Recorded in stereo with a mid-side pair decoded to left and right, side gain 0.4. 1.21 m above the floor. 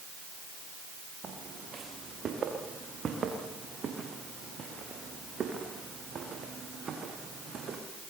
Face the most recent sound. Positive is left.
turn(degrees=-55)